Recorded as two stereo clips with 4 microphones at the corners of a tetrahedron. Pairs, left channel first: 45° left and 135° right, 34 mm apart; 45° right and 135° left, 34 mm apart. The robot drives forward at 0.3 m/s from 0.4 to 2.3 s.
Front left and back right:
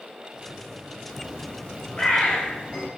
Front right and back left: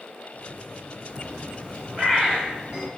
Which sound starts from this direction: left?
A bird, at 1.1 s.